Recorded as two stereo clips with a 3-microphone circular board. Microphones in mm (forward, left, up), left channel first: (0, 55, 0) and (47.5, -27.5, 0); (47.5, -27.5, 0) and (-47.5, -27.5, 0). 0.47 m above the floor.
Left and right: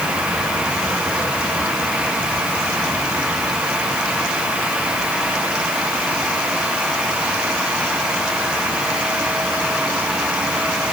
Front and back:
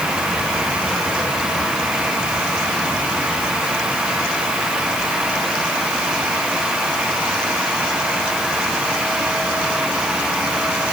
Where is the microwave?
No microwave in this recording.